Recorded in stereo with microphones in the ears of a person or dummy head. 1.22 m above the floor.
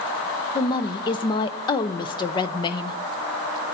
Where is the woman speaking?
25° left (ahead or behind), 0.5 m.